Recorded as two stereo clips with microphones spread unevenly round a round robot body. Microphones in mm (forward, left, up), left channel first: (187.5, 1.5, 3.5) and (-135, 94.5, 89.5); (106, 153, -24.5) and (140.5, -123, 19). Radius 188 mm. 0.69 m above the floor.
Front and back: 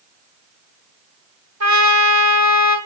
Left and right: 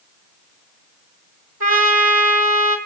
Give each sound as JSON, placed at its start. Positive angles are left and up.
{"t": 1.6, "sound": "a trumpet", "azimuth_deg": -140, "distance_m": 3.0}